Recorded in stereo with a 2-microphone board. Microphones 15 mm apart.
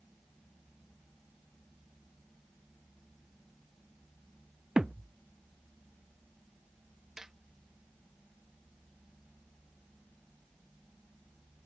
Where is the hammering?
35° right (ahead or behind).